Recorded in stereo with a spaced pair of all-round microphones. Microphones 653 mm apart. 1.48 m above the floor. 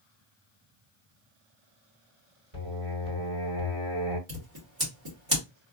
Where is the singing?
45° right (ahead or behind), 2.5 m.